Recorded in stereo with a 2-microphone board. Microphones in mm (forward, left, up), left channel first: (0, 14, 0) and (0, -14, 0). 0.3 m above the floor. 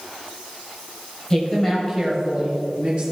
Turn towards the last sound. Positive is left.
turn(degrees=-35)  # may be behind; listen again after turning